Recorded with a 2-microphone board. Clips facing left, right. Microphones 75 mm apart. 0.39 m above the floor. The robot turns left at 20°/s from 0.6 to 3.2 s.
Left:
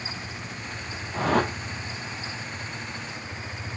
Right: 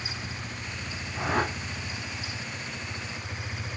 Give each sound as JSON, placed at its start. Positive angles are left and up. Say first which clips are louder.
{"t": 1.1, "sound": "a whoosh", "louder": "left 4 dB", "side_deg": 75, "distance_m": 1.9}